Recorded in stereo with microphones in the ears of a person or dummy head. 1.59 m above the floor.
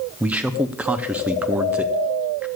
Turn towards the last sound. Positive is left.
turn(degrees=-10)  # may be behind; listen again after turning